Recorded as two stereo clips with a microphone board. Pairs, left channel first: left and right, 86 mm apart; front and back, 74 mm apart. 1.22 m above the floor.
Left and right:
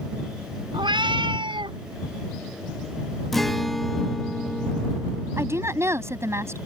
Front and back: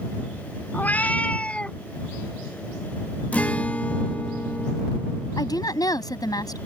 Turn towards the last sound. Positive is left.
turn(degrees=-30)